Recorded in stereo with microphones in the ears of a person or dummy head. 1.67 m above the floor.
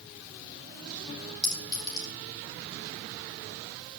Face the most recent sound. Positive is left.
turn(degrees=25)  # may be behind; listen again after turning